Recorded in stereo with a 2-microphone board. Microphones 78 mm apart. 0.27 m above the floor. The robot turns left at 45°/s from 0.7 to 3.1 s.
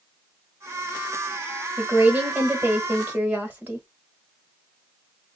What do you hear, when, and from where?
1.8 s a woman speaking: 20° right (ahead or behind), 1.2 m